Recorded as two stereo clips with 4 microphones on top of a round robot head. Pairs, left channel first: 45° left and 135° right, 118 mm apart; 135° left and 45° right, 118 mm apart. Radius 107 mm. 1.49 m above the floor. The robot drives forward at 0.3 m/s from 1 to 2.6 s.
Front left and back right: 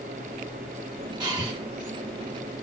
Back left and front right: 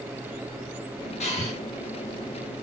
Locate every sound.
1.2 s breathing: 170° left, 1.3 m